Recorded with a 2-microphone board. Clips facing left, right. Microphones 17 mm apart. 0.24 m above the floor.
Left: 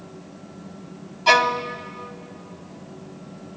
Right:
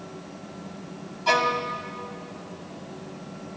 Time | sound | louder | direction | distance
1.3 | a violin | left 5 dB | 30° left (ahead or behind) | 1.1 m